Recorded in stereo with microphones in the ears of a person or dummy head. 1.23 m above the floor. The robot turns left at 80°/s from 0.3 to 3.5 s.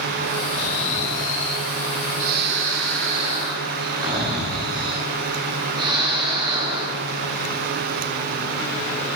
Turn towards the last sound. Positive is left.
turn(degrees=-155)